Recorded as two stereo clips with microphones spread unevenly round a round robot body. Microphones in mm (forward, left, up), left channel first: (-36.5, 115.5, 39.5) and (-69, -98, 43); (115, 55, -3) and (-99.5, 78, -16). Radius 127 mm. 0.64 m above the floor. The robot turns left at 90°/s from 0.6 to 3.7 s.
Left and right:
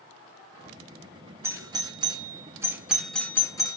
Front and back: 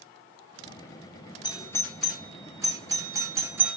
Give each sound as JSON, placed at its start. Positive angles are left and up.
{"t": 1.4, "sound": "a doorbell", "azimuth_deg": -45, "distance_m": 1.5}